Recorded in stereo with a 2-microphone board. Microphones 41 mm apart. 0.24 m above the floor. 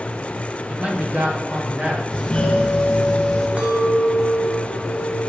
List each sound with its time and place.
0.7 s a man speaking: 25° right (ahead or behind), 1.9 m; by 2.0 s 40° right (ahead or behind), 2 m
2.1 s a doorbell: 25° left (ahead or behind), 2.5 m
3.6 s a clink: 30° right (ahead or behind), 1.1 m